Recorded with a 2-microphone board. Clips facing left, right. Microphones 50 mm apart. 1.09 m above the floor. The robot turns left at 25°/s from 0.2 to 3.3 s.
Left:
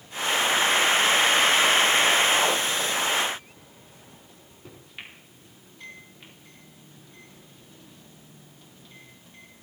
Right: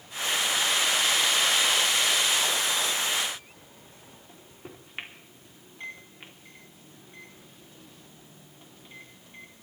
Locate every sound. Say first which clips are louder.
4.3 s a microwave: right 5 dB; 30° right (ahead or behind), 3 m